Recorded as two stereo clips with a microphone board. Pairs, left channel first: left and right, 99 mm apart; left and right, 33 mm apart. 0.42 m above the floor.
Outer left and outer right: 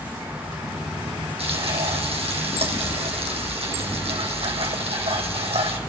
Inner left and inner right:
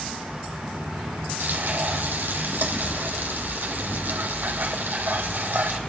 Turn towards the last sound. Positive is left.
turn(degrees=-85)